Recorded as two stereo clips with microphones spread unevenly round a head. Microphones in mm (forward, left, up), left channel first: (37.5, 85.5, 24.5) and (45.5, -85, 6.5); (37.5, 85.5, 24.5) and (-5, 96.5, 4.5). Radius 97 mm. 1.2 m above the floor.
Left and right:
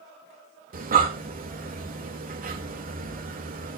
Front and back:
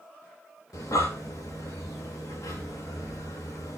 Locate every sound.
0.7 s breathing: 55° right, 2.5 m